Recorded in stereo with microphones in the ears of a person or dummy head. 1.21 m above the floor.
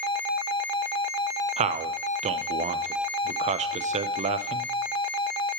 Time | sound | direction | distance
1.6 | a man speaking | 35° right (ahead or behind) | 0.6 m